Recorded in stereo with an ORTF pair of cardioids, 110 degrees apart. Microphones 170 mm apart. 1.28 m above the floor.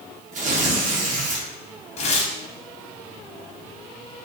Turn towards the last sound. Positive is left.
turn(degrees=40)